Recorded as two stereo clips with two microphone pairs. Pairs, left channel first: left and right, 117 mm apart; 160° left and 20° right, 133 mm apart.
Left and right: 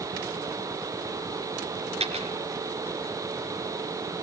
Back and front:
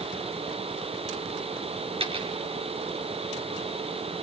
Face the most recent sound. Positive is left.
turn(degrees=-65)